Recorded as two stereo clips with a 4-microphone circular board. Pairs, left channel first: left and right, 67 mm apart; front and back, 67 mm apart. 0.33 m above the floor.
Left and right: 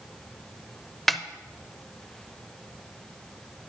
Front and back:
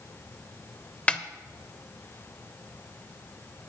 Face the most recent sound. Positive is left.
turn(degrees=5)